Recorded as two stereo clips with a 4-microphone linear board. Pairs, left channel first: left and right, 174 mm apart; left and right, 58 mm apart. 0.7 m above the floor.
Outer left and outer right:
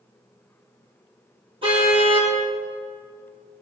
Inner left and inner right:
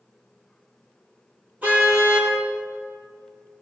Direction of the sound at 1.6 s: 30° right (ahead or behind).